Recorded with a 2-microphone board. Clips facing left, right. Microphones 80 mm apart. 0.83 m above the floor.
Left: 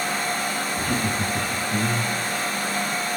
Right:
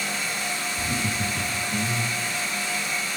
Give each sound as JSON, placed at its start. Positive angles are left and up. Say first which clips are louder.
{"t": 0.8, "sound": "laughter", "louder": "left 3 dB", "side_deg": 75, "distance_m": 2.0}